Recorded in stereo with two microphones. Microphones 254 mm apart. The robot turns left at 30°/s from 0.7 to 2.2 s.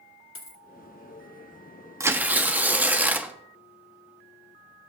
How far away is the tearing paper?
About 0.8 m.